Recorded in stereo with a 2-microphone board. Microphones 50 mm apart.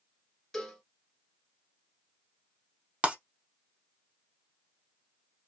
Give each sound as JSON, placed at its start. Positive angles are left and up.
{"t": 0.5, "sound": "a cowbell", "side_deg": 10, "distance_m": 0.8}
{"t": 3.0, "sound": "breaking glass", "side_deg": -25, "distance_m": 0.7}